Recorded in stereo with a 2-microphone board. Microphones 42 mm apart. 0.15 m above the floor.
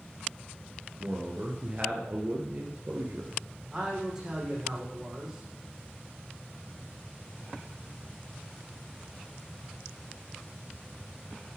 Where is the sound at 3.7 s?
15° right (ahead or behind), 6.5 m.